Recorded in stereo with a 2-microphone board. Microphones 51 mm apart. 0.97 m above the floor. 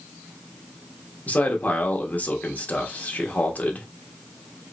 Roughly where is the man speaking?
Left.